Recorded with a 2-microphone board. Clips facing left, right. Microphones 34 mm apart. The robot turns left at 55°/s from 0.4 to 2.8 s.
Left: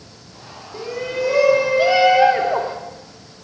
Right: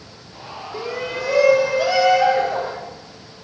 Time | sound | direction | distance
0.7 | a shout | 155° right | 0.7 m